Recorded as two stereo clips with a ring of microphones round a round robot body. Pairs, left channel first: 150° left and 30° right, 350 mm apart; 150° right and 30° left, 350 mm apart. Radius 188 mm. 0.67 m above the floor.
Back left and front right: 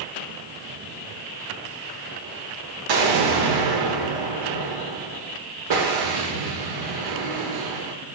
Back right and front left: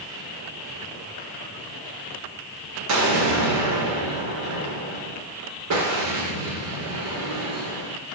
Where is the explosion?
15° right, 2.0 m.